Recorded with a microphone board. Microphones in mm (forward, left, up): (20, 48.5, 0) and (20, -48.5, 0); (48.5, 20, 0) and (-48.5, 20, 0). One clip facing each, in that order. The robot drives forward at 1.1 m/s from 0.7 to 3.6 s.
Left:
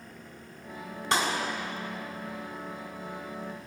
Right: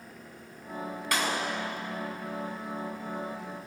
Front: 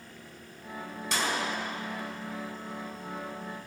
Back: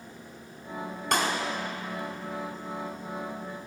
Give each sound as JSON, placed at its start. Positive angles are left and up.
{"t": 1.1, "sound": "a clap", "azimuth_deg": 155, "distance_m": 4.5}